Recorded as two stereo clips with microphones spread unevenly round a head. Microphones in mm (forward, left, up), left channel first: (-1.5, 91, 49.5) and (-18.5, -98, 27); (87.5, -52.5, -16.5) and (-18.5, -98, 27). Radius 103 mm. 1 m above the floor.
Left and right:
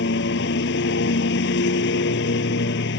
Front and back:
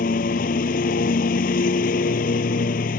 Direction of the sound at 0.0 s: 50° left.